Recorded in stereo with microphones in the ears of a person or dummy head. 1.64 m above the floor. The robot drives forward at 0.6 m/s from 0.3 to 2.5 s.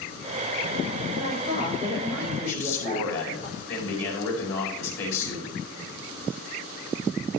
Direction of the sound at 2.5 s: 75° left (ahead or behind).